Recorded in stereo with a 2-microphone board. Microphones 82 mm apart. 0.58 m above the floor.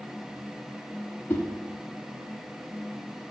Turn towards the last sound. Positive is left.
turn(degrees=25)  # may be behind; listen again after turning